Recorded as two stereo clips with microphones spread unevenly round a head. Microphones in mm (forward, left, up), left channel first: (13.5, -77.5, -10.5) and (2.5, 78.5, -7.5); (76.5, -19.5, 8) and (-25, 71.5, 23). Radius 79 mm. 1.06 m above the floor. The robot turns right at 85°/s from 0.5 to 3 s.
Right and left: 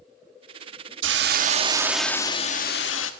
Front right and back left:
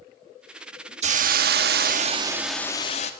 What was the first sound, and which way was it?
A hiss, 100° left.